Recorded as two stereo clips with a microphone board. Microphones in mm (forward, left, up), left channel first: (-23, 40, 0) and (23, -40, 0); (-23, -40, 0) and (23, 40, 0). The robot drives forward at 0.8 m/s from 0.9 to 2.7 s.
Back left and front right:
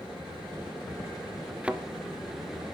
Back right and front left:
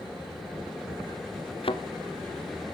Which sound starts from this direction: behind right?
A thud, at 1.6 s.